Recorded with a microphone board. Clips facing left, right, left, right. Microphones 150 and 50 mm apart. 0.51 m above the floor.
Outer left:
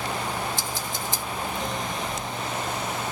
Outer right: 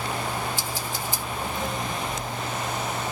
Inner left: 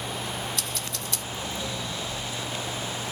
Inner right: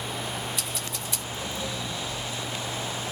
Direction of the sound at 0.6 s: 10° right (ahead or behind).